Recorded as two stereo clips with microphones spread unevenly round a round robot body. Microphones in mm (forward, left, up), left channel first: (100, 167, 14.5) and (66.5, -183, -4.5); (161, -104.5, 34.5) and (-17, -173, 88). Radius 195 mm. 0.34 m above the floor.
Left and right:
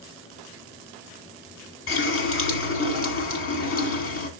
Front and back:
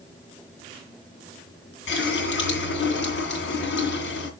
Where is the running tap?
30° left, 2 m.